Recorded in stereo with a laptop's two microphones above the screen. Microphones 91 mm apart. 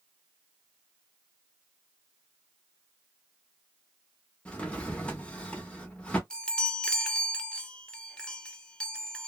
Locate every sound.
4.5 s a drawer: 10° left (ahead or behind), 0.6 m
6.3 s a chime: 10° left (ahead or behind), 0.6 m